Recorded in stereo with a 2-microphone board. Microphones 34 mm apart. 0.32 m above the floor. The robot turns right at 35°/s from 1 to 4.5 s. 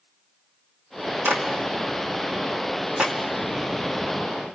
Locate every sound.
1.2 s a clap: 75° right (ahead or behind), 2 m; by 3.1 s 20° right (ahead or behind), 2 m